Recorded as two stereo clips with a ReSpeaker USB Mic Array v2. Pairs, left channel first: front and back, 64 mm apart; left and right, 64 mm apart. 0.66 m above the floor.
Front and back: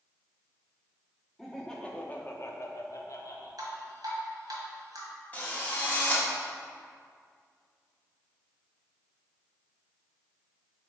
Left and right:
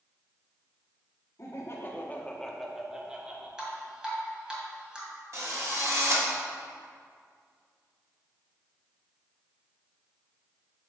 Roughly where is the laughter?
Left.